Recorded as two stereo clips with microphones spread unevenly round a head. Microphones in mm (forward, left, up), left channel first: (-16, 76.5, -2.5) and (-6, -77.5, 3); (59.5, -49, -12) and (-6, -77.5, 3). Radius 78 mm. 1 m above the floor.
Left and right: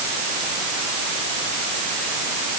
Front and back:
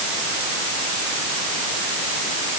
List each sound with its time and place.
Only background noise.